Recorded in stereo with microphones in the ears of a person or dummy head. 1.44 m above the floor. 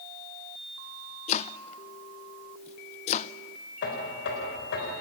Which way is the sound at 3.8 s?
50° left (ahead or behind).